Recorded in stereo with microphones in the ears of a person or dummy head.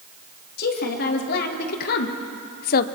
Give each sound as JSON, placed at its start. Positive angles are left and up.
{"t": 0.6, "sound": "a woman speaking", "side_deg": 55, "distance_m": 3.0}